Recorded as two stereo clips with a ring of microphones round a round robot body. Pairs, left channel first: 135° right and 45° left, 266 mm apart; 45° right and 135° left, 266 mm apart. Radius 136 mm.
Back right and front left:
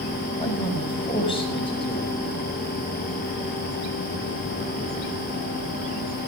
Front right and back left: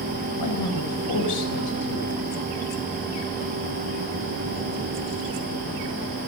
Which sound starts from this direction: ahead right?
A man speaking, at 0.4 s.